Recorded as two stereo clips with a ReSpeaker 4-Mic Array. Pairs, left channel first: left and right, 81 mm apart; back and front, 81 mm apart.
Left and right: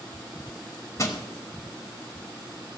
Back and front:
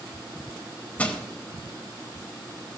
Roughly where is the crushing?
Behind left.